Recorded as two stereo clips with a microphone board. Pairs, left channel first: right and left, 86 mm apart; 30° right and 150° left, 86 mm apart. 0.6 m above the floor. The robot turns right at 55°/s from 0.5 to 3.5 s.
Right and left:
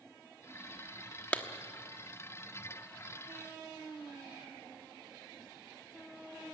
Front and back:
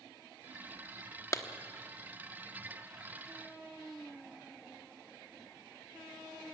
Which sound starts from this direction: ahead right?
A clap, at 1.3 s.